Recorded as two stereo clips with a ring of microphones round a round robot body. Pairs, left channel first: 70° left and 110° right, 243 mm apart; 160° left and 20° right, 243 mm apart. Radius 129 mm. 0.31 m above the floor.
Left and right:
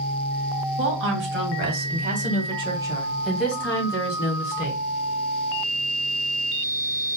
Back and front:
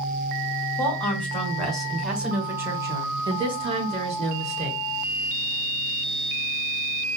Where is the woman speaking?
120° right, 1.9 m; by 4.8 s 25° left, 1.6 m.